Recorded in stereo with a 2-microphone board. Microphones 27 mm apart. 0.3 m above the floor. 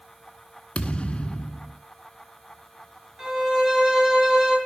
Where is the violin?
20° right (ahead or behind), 5 m.